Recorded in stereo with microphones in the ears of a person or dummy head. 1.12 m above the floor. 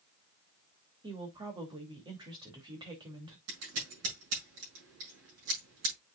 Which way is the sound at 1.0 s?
25° right (ahead or behind).